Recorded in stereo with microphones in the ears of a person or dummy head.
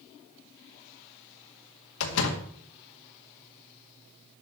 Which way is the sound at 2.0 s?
70° left (ahead or behind).